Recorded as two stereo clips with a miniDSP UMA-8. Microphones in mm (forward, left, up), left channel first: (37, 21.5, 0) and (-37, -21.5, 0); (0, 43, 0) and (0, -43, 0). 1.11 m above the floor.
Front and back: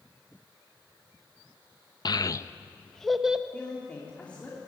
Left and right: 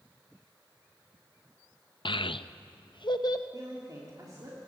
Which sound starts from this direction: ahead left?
A child speaking, at 2.0 s.